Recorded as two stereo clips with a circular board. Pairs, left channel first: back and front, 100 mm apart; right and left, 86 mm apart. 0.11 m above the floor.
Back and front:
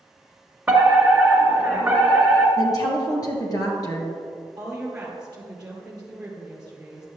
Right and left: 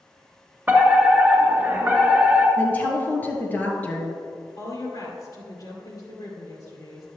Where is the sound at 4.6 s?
75° right, 2 m.